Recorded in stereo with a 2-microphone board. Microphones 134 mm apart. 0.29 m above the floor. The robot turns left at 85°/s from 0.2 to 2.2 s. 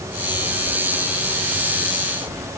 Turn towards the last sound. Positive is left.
No sound to turn to.